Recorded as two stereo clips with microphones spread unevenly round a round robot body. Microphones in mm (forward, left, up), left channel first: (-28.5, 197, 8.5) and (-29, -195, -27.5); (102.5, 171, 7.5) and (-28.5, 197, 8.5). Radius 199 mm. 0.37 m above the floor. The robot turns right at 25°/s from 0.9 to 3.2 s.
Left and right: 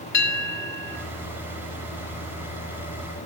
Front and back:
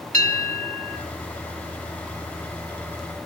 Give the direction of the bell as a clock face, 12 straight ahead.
7 o'clock.